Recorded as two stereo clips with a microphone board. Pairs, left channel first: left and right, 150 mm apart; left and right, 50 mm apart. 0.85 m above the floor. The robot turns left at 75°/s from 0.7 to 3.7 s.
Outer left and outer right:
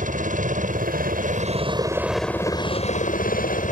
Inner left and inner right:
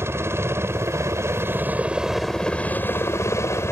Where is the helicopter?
70° right; by 3.7 s 65° left.